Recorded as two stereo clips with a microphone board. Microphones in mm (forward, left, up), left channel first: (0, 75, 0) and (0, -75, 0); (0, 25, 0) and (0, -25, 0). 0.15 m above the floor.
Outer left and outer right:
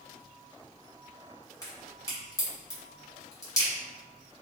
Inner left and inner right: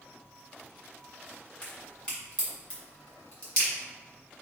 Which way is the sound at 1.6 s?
25° left (ahead or behind).